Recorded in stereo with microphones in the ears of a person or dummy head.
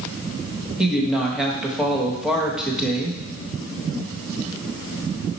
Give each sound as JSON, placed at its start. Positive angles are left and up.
{"t": 0.8, "sound": "a woman speaking", "side_deg": 0, "distance_m": 1.3}